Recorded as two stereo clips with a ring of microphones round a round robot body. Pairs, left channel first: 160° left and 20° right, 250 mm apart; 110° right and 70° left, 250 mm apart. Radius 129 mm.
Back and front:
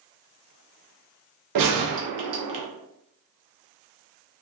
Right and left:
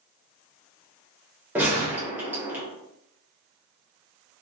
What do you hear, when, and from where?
1.6 s a gunshot: 15° right, 0.7 m